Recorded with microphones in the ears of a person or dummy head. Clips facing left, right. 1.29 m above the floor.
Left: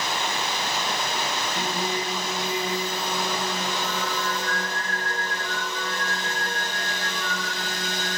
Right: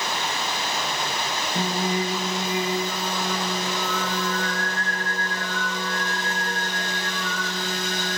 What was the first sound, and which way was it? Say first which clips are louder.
Singing: right 6 dB; 55° right (ahead or behind).